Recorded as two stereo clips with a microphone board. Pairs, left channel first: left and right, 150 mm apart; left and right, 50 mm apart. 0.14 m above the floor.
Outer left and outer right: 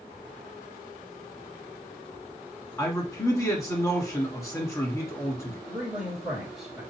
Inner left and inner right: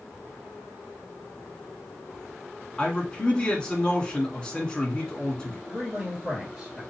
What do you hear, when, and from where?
2.8 s a man speaking: 20° left (ahead or behind), 1.3 m
5.7 s a man speaking: 5° right (ahead or behind), 2 m